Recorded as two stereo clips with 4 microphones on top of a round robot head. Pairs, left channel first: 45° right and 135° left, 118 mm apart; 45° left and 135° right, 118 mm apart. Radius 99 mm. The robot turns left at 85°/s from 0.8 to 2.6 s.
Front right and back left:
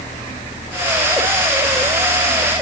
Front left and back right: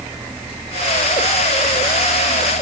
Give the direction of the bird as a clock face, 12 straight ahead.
I don't hear a bird.